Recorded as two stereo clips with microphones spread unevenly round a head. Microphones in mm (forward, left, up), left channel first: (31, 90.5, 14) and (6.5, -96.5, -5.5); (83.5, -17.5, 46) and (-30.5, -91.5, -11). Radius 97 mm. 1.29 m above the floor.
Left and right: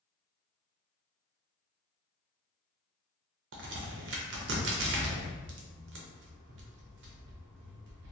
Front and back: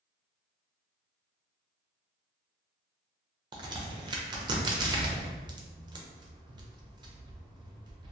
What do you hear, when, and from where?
3.5 s a crack: 75° right, 0.6 m